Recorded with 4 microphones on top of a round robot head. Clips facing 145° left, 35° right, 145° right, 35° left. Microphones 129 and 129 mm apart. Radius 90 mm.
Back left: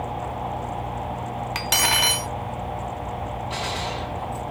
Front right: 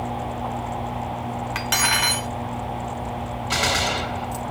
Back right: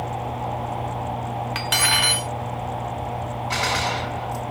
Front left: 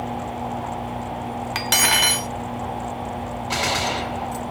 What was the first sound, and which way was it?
Cutlery clinking, 85° left.